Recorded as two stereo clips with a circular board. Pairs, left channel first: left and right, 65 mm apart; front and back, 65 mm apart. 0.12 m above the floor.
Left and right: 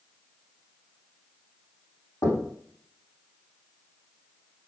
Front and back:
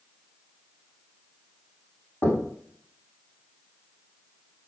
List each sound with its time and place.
2.2 s knocking: 55° left, 5 m